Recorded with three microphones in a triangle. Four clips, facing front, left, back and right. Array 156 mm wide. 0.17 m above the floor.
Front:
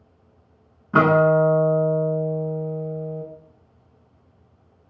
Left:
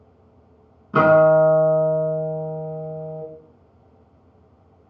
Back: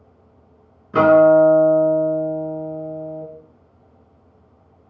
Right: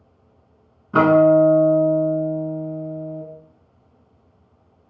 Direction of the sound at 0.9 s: 15° right.